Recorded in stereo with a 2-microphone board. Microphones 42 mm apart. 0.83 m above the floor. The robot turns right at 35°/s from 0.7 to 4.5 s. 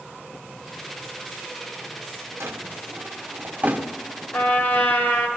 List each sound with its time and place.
2.4 s a drawer: 85° right, 1.5 m; by 3.9 s 35° right (ahead or behind), 1.5 m
4.3 s a trumpet: 50° left (ahead or behind), 3 m; by 5.3 s 40° left (ahead or behind), 3 m